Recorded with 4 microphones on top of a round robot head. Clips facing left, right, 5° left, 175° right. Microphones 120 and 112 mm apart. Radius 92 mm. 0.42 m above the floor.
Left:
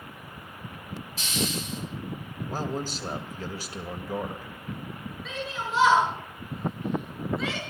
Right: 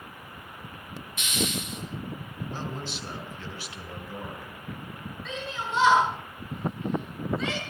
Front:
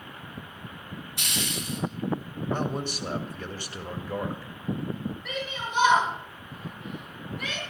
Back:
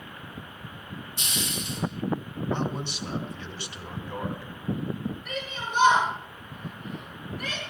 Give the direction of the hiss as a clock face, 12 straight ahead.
11 o'clock.